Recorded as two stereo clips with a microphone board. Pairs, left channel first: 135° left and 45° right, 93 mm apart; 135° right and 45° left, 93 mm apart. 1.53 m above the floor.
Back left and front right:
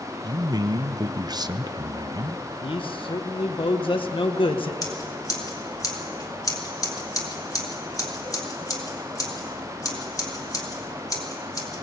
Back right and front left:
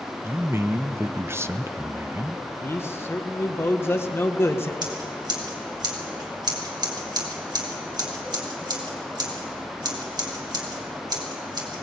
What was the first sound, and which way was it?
A man speaking, 15° right.